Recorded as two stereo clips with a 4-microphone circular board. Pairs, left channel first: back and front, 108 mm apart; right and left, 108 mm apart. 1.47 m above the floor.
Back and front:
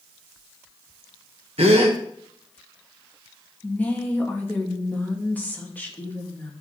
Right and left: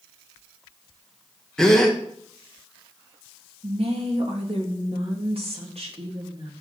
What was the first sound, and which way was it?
A gasp, 5° right.